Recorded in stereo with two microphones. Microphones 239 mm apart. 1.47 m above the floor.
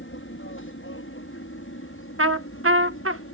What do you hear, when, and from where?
0.0 s an aircraft: 60° left (ahead or behind); by 3.3 s 65° left (ahead or behind)
2.2 s a trumpet: 65° right (ahead or behind)